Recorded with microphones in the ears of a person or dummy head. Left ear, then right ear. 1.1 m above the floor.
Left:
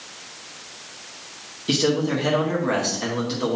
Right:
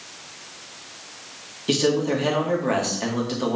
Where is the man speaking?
20° right (ahead or behind), 1.8 m.